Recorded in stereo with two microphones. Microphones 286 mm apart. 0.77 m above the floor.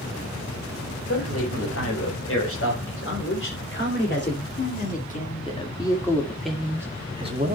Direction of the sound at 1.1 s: 55° left (ahead or behind).